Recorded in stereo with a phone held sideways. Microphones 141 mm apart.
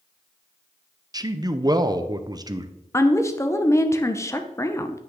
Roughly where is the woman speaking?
Centre.